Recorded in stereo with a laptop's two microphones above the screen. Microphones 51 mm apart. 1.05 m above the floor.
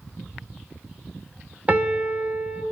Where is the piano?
30° right (ahead or behind), 0.9 m.